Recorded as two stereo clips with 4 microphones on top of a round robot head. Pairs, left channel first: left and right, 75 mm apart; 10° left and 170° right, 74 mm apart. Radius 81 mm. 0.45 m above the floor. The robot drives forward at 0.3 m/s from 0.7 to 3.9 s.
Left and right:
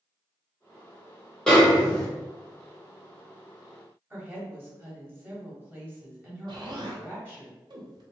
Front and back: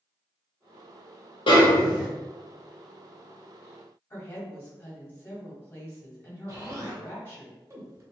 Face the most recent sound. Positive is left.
turn(degrees=-120)